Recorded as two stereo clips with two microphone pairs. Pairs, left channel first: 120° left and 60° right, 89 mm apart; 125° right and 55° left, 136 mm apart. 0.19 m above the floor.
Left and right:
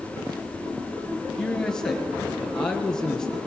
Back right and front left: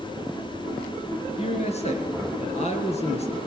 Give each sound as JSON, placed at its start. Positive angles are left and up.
{"t": 1.4, "sound": "a man speaking", "azimuth_deg": -160, "distance_m": 3.5}